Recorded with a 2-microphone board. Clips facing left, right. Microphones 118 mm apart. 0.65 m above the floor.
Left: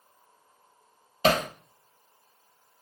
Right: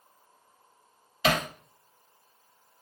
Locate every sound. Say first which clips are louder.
1.2 s hammering: left 3 dB; 40° left (ahead or behind), 1.6 m